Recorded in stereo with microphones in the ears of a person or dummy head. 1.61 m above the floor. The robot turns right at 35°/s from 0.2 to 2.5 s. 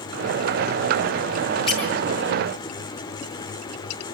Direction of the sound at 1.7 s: 35° left (ahead or behind).